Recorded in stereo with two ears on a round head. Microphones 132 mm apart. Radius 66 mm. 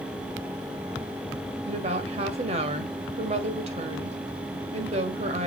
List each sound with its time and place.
1.6 s a woman speaking: 45° right (ahead or behind), 1.7 m